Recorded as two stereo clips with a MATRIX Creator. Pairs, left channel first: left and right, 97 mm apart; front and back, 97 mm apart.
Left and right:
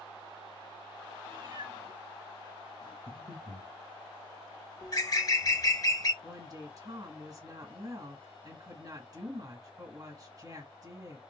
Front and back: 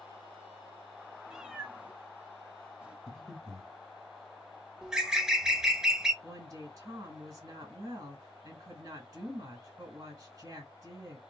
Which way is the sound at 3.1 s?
80° right.